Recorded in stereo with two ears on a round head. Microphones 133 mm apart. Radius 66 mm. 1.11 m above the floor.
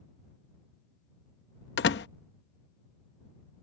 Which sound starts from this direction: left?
A door slam, at 1.8 s.